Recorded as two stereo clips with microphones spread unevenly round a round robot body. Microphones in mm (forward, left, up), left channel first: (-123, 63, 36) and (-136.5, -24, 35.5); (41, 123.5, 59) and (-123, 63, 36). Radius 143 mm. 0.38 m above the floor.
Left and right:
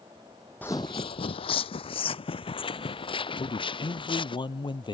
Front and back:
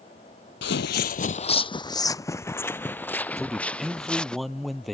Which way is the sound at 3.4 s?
110° left.